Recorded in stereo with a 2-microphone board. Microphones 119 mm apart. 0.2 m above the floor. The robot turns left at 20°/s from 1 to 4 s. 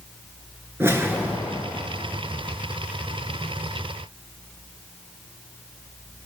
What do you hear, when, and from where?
0.8 s a whoosh: 20° right (ahead or behind), 3.5 m; by 1.7 s 5° right (ahead or behind), 3.5 m